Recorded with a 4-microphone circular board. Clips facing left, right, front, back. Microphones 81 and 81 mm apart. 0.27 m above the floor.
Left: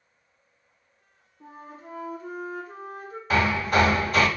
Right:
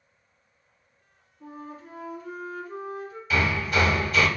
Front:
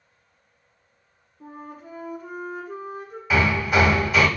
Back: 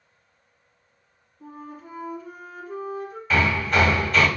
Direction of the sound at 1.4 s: 35° left.